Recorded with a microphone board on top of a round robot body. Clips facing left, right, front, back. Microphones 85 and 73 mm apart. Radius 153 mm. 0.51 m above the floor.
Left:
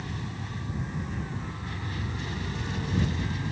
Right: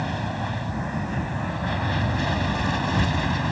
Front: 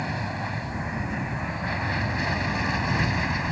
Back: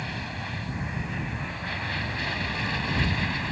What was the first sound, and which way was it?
An aircraft, 65° right.